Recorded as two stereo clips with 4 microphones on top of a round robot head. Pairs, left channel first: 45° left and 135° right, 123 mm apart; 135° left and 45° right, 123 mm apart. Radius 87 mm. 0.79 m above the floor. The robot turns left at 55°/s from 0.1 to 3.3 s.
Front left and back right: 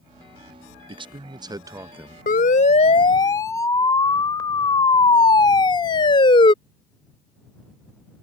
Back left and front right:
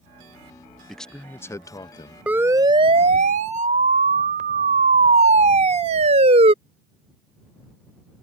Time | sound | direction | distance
0.9 | a man speaking | 135° right | ?
2.3 | a siren | 35° left | ?